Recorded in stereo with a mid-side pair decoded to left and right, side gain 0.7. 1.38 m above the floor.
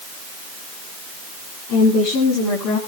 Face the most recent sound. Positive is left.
turn(degrees=65)